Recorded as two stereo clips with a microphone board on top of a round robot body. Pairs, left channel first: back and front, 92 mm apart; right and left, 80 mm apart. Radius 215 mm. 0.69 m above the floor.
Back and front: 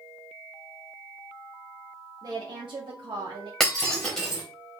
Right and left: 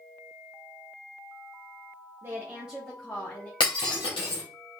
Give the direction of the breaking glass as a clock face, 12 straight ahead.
3 o'clock.